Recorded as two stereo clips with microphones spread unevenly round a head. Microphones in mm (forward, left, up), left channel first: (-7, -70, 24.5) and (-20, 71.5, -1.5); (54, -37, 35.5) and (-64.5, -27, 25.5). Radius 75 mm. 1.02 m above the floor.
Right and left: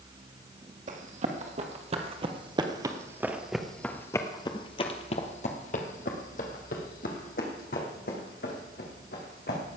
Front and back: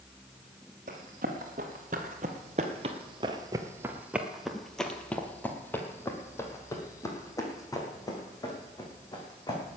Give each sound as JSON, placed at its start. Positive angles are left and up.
{"t": 0.9, "sound": "running footsteps", "azimuth_deg": 135, "distance_m": 2.0}